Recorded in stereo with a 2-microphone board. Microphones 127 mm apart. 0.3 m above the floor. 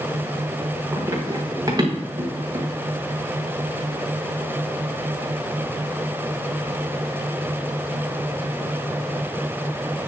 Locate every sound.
0.9 s running footsteps: 25° right (ahead or behind), 4.5 m; by 2.7 s 40° right (ahead or behind), 3.5 m